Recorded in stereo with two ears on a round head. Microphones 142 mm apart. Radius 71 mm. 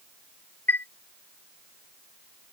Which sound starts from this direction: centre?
A chime, at 0.7 s.